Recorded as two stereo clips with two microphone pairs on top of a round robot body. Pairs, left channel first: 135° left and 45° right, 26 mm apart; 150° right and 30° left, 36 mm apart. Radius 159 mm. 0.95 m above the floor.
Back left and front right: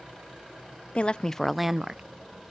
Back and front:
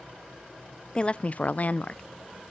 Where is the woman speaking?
155° left, 0.5 m; by 2.0 s 110° right, 0.6 m.